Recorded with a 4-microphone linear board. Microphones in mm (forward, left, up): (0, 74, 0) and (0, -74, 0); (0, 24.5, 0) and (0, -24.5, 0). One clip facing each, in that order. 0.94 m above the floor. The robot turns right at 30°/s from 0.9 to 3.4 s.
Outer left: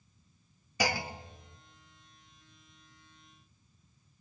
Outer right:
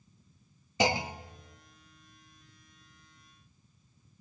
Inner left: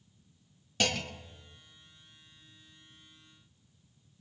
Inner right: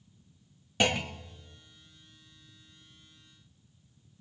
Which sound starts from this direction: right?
A clunk, at 0.8 s.